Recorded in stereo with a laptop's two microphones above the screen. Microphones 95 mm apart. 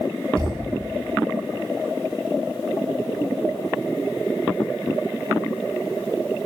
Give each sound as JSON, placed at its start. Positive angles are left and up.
{"t": 0.4, "sound": "a thud", "side_deg": -45, "distance_m": 10.0}